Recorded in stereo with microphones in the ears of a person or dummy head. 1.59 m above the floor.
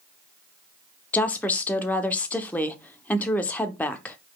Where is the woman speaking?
15° left (ahead or behind), 0.8 m.